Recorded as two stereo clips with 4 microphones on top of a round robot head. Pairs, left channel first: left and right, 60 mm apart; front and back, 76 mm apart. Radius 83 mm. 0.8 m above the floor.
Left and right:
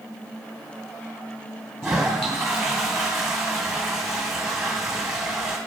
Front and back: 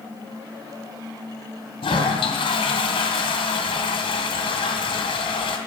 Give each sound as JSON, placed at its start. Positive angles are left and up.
{"t": 1.8, "sound": "a toilet flushing", "azimuth_deg": -5, "distance_m": 2.5}